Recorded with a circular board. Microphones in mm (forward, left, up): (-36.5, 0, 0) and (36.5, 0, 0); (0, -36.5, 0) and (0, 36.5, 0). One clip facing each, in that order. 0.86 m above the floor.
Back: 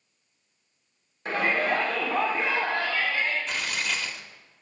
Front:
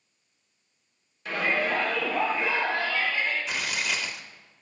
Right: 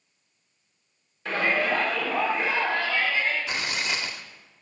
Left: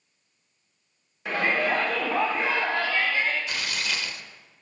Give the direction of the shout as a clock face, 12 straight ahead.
7 o'clock.